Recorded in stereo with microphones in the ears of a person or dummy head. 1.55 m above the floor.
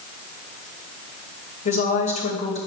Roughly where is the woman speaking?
Left.